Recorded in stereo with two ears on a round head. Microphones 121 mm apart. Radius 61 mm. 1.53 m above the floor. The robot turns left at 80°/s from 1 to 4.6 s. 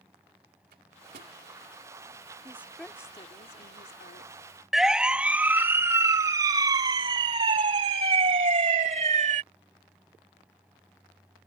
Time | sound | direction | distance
0.7 | a microwave | 70° right (ahead or behind) | ?
2.5 | a woman speaking | 155° right | ?
4.7 | a siren | centre (ahead or behind) | ?